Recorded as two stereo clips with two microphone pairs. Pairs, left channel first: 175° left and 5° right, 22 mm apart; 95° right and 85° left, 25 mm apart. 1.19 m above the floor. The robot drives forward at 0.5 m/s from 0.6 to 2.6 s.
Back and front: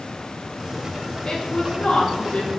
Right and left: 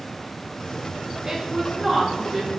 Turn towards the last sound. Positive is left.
turn(degrees=165)